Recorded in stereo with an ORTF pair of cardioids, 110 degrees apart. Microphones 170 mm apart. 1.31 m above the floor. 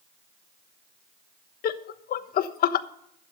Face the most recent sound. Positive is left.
turn(degrees=60)